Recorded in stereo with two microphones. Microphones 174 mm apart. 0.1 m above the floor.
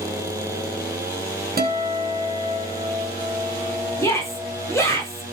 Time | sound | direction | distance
1.6 | a guitar | 60° right (ahead or behind) | 3 m
4.0 | a shout | 15° left (ahead or behind) | 7.5 m